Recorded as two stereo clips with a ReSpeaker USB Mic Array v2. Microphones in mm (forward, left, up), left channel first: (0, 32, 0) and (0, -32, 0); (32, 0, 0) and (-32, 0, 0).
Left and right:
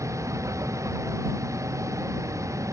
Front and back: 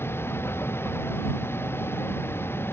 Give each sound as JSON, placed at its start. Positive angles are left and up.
{"t": 0.0, "sound": "a vehicle", "azimuth_deg": -50}